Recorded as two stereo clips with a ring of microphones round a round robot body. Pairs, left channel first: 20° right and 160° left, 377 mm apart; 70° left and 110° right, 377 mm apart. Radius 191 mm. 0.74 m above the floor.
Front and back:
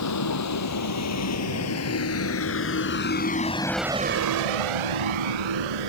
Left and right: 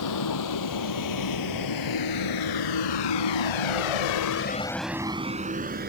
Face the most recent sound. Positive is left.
turn(degrees=180)